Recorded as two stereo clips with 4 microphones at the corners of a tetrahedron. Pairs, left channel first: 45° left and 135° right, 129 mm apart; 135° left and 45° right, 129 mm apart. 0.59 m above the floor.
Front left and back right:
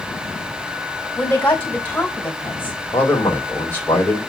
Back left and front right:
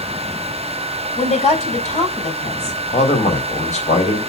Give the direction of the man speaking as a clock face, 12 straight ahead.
8 o'clock.